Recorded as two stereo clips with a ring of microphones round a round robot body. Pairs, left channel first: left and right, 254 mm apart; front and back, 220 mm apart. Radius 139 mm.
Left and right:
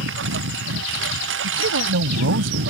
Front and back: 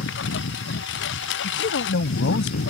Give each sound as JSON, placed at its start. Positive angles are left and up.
{"t": 0.0, "sound": "a lawn mower", "azimuth_deg": -45}
{"t": 1.4, "sound": "a man speaking", "azimuth_deg": -50}